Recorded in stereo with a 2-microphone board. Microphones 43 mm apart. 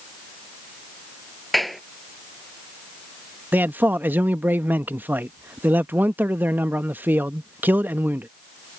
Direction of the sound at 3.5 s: 50° right (ahead or behind).